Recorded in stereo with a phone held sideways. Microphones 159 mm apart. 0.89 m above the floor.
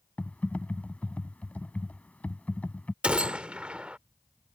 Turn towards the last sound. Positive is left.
turn(degrees=-10)  # may be behind; listen again after turning